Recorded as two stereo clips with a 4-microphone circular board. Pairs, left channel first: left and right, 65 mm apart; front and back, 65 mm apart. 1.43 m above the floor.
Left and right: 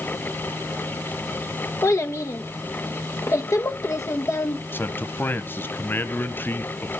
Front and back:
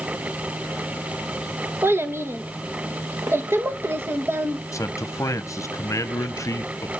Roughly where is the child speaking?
Behind left.